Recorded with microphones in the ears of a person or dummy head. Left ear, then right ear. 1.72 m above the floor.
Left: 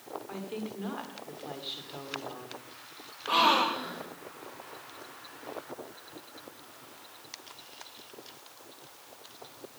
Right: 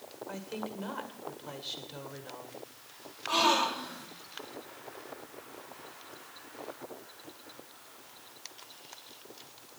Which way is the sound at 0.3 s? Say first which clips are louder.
Right 3 dB; centre (ahead or behind).